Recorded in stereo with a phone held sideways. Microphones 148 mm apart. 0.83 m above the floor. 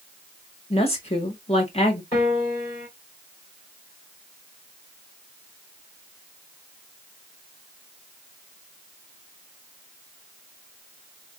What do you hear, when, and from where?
0.7 s a woman speaking: 40° left (ahead or behind), 1.1 m
2.1 s a piano: 40° left (ahead or behind), 3 m